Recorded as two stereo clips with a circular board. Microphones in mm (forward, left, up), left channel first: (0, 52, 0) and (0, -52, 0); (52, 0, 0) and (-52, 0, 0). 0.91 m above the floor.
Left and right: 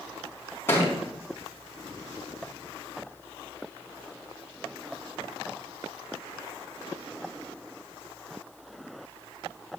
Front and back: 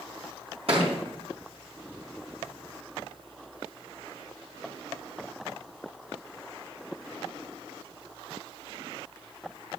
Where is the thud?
160° left, 4 m.